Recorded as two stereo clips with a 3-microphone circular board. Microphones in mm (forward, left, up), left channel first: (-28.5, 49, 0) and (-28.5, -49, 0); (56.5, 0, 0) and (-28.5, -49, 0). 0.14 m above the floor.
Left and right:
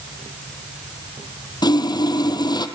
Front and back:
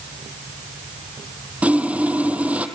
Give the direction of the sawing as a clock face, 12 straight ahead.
7 o'clock.